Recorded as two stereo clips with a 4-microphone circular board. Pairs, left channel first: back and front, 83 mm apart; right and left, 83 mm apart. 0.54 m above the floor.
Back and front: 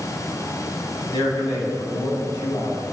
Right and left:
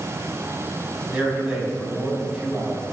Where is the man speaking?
165° left, 4.5 m.